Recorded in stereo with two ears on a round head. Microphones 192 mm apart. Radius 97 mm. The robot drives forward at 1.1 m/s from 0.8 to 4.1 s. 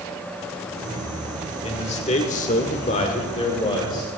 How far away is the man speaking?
About 1.7 m.